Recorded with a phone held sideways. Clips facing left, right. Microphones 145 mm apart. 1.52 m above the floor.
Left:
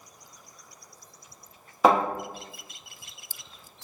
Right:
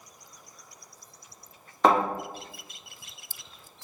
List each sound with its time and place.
1.8 s a thud: 5° left (ahead or behind), 1.1 m